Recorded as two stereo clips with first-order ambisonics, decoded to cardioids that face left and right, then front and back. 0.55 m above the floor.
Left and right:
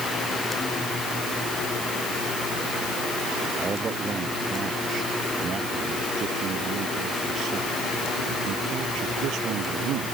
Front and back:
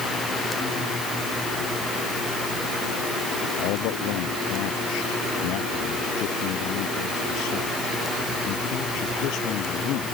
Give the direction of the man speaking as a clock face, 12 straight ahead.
1 o'clock.